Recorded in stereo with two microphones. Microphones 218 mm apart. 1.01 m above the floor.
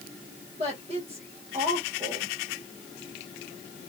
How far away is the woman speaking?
About 1.4 m.